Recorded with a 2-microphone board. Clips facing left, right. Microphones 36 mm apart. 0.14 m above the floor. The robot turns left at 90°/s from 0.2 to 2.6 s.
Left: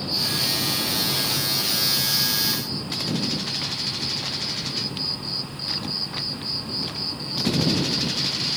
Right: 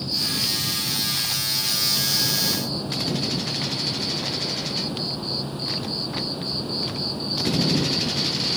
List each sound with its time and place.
0.0 s an insect: 165° left; by 8.6 s 50° right